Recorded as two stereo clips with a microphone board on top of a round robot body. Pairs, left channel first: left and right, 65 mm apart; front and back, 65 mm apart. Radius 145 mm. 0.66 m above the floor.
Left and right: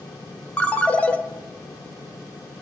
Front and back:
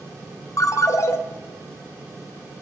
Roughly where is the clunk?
I don't hear a clunk.